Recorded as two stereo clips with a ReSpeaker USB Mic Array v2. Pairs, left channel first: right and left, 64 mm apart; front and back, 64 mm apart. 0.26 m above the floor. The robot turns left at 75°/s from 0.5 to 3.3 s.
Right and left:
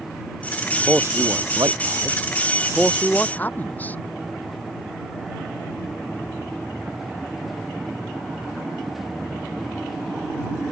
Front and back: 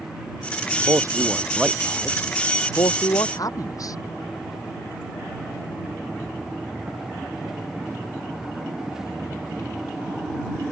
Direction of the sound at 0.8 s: 160° left.